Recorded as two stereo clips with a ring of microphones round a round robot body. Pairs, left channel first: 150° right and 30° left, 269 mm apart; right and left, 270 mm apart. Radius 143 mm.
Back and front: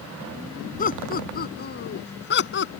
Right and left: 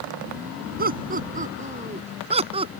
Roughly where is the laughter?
Behind left.